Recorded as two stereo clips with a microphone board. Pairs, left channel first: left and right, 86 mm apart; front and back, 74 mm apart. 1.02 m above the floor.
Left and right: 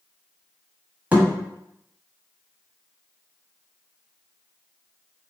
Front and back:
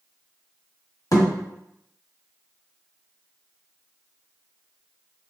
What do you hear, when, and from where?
1.1 s a thud: 20° right, 1.3 m